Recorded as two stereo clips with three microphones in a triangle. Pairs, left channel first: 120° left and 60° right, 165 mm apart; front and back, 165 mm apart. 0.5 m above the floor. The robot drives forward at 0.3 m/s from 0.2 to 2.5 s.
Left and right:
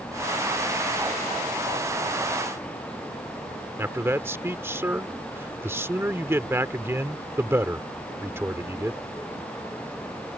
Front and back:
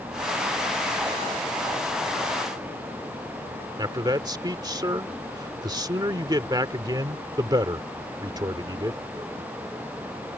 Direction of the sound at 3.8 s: 130° right.